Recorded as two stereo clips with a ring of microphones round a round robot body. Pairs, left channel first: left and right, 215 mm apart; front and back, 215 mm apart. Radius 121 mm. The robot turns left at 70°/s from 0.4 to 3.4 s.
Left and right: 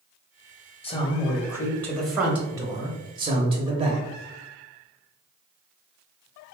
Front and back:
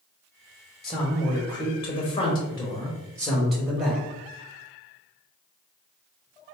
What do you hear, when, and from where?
0.8 s a man speaking: 85° left, 1.1 m; by 4.0 s 95° right, 1.1 m